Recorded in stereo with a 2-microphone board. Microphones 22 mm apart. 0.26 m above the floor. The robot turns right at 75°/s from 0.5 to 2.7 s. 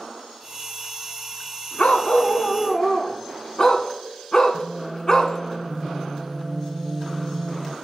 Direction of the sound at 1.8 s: 75° left.